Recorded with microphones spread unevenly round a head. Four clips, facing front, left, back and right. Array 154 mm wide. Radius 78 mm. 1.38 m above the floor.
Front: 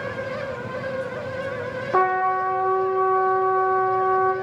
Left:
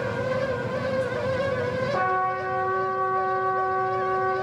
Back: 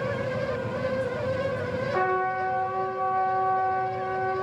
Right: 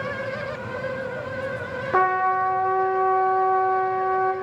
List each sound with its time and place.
1.9 s a trumpet: 45° right, 0.6 m